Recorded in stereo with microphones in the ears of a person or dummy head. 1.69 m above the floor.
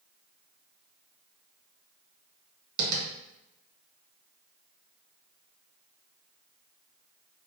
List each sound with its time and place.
2.8 s tapping: 75° right (ahead or behind), 1.2 m